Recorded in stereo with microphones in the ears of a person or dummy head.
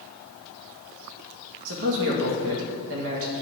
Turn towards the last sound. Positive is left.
turn(degrees=-70)  # may be behind; listen again after turning